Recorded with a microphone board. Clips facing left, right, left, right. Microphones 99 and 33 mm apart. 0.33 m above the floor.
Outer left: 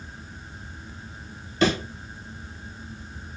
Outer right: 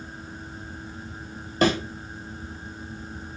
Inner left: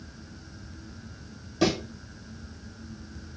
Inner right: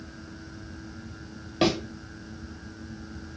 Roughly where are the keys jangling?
No keys jangling in this recording.